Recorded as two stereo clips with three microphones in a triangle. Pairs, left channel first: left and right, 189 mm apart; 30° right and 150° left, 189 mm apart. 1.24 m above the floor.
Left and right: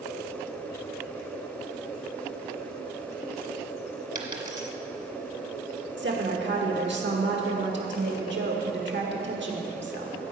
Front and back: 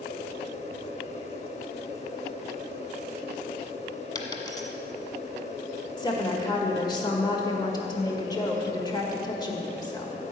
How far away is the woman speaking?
About 1.8 m.